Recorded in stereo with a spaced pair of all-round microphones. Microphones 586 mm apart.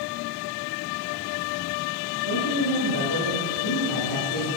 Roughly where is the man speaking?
Left.